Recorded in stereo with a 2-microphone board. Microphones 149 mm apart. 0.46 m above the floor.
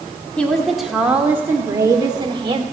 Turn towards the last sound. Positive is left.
turn(degrees=-35)  # may be behind; listen again after turning